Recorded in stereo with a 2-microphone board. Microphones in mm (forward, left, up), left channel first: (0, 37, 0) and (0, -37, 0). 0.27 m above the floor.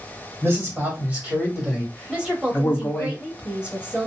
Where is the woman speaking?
15° right (ahead or behind), 0.9 m.